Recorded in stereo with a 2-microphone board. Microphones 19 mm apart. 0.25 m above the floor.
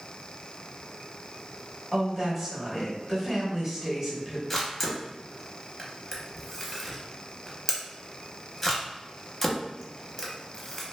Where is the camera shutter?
10° left (ahead or behind), 0.6 m.